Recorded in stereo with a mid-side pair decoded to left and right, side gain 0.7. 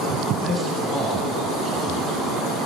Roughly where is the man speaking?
Ahead.